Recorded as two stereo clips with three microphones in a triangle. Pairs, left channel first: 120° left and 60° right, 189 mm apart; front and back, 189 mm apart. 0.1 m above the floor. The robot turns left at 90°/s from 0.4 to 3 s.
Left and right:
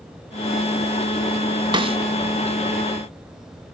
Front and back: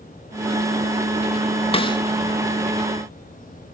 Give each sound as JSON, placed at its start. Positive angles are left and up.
{"t": 1.7, "sound": "a snare drum", "azimuth_deg": -20, "distance_m": 0.6}